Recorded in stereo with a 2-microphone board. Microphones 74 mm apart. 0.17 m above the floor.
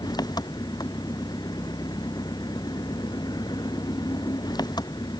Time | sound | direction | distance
0.0 | an engine running | 80° left | ?